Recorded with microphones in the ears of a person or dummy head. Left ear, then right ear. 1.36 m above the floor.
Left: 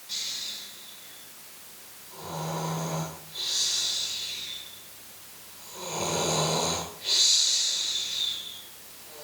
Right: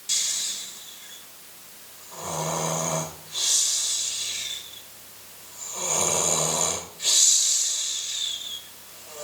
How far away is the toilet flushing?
No toilet flushing in this recording.